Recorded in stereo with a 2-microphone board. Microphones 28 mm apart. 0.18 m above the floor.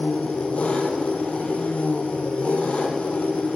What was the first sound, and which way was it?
An engine running, 55° left (ahead or behind).